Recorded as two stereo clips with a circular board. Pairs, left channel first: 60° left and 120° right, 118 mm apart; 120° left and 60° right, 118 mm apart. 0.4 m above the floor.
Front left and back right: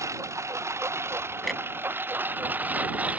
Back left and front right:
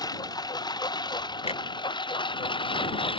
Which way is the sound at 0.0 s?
175° left.